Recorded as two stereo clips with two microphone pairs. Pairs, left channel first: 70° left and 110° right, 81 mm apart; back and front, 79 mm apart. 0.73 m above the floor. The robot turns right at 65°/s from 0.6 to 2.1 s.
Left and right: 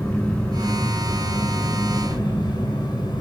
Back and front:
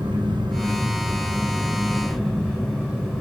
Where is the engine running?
Straight ahead, 5 m; by 3.2 s 100° left, 5 m.